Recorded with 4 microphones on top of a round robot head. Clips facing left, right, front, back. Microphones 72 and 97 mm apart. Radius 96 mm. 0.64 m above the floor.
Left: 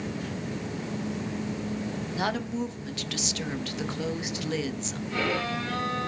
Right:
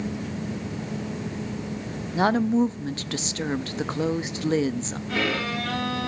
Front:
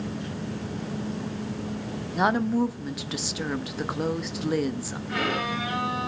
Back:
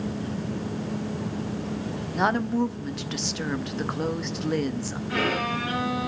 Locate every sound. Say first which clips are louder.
2.1 s a woman speaking: right 10 dB, front 1 dB; 80° right, 0.6 m
5.1 s a violin: right 2 dB, back 1 dB; 95° right, 7 m